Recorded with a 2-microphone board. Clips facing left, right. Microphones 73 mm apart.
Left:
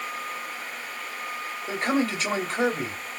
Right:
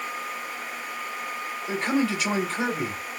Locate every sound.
1.7 s a man speaking: 35° left (ahead or behind), 3 m